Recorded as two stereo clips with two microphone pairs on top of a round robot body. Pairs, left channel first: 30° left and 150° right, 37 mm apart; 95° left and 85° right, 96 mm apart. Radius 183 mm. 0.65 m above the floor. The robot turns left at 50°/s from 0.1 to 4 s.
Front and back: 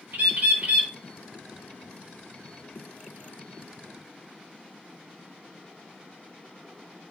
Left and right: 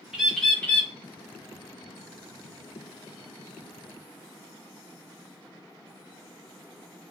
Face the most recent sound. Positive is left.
turn(degrees=0)